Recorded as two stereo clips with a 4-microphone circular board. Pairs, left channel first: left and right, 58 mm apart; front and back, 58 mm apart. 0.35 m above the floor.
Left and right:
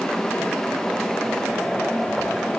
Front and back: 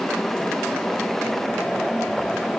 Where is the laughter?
No laughter in this recording.